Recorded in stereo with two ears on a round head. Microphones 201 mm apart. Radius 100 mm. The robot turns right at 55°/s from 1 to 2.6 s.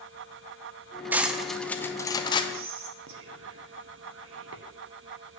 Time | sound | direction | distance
1.1 | cutlery clinking | 10° right (ahead or behind) | 0.7 m
2.5 | whispering | 60° right (ahead or behind) | 1.3 m